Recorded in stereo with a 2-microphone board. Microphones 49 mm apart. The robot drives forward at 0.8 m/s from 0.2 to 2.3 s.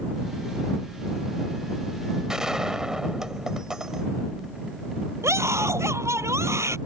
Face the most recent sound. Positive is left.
turn(degrees=-70)  # may be behind; listen again after turning